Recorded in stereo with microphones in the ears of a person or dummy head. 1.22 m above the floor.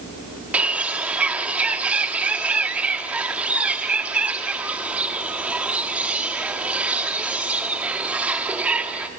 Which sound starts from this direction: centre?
A bird, at 0.5 s.